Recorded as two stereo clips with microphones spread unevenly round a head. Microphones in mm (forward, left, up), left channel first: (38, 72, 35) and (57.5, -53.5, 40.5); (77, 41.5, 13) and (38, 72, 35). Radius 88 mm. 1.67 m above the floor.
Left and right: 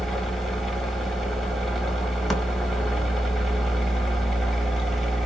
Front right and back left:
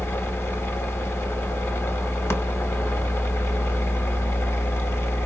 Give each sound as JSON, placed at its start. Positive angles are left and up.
{"t": 0.0, "sound": "a machine running", "azimuth_deg": 10, "distance_m": 1.0}